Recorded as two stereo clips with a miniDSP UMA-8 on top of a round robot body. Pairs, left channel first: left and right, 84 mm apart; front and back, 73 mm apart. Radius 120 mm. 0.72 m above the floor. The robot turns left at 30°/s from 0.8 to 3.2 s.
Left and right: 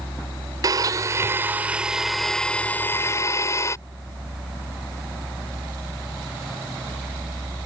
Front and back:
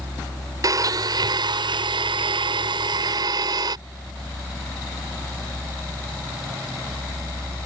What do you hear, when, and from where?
0.6 s a blender: 140° right; by 3.8 s 150° left